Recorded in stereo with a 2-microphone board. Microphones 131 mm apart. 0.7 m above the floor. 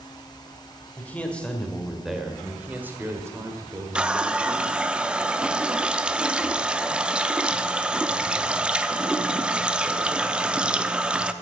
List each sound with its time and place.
1.0 s a man speaking: 15° left (ahead or behind), 2.5 m; by 4.9 s 45° right (ahead or behind), 2 m
4.0 s a running tap: 5° right (ahead or behind), 0.6 m